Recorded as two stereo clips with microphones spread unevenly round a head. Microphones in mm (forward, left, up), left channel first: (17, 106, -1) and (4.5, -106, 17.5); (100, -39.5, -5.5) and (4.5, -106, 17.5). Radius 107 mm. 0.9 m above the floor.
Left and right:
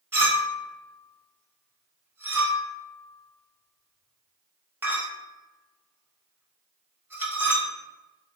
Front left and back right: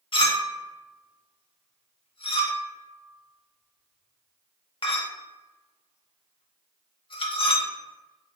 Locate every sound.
0.1 s a clink: 15° right, 0.7 m